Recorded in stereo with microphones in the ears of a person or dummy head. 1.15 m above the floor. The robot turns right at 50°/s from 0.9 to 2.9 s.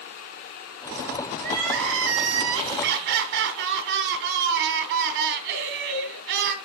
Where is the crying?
130° right, 7 m; by 6.5 s 55° right, 7 m.